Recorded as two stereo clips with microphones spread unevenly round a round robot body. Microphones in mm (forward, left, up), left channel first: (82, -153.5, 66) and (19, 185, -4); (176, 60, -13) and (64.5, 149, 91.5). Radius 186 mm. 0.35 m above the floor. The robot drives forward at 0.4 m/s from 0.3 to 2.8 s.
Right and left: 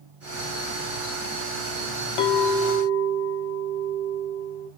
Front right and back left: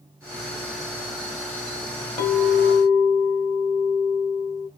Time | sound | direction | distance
2.2 | a clink | 95° right | 0.8 m